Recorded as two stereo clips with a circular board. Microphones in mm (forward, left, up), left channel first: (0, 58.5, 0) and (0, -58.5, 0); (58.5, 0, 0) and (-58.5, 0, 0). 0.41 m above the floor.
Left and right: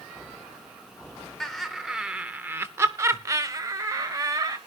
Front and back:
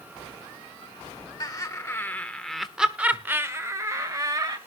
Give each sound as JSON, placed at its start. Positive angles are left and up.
{"t": 1.4, "sound": "laughter", "azimuth_deg": 5, "distance_m": 1.2}